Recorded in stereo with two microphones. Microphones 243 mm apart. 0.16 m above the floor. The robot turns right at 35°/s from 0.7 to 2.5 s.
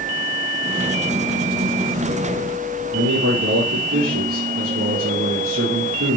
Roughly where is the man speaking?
Right.